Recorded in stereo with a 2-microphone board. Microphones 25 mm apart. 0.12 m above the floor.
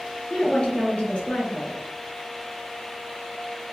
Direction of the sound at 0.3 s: 40° left (ahead or behind).